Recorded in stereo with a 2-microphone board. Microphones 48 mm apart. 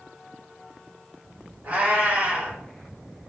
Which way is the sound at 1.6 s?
40° right (ahead or behind).